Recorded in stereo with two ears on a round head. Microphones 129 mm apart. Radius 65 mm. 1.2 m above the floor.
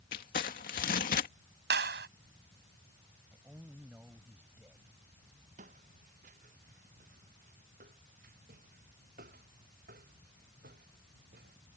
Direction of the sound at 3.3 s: 10° right (ahead or behind).